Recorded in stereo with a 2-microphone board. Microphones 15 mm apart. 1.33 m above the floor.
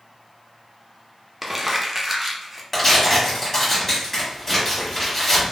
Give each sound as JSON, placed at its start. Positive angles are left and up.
{"t": 1.4, "sound": "crumpling", "side_deg": -15, "distance_m": 0.5}
{"t": 2.7, "sound": "tearing paper", "side_deg": 20, "distance_m": 1.3}